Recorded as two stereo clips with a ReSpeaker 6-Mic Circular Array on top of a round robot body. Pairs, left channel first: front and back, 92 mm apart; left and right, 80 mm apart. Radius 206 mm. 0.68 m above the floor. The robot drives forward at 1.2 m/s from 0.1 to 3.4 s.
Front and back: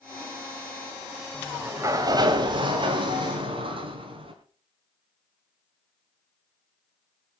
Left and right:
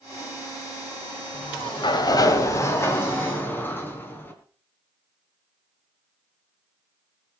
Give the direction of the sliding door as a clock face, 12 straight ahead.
9 o'clock.